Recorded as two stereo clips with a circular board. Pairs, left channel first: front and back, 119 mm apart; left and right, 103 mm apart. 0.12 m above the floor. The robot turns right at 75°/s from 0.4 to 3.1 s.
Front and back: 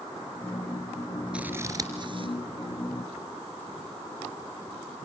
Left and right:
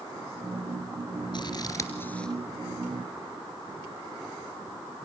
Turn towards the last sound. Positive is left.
turn(degrees=-125)